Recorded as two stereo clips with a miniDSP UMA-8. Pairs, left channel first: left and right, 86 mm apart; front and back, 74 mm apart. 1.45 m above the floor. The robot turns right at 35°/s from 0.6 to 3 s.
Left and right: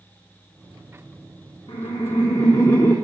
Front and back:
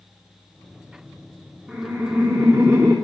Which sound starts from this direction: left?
Laughter, at 1.7 s.